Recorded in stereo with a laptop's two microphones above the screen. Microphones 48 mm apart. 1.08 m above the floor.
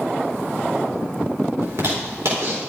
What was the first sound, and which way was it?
A zipper, 70° right (ahead or behind).